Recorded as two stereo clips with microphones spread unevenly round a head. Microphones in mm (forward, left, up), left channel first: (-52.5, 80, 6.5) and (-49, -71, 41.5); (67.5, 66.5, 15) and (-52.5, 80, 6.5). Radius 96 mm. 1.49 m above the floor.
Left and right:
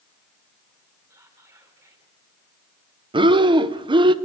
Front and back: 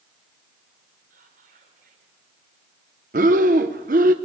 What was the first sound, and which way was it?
Whispering, 160° right.